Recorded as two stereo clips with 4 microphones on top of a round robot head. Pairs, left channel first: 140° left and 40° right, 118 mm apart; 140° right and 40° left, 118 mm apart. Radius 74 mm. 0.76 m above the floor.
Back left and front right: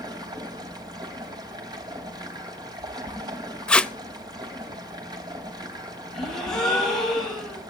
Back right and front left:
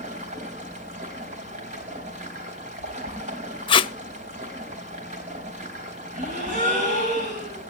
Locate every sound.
0.0 s running water: 15° left, 3 m
3.7 s tape being pulled: 145° right, 0.6 m
6.1 s a gasp: 55° left, 5.5 m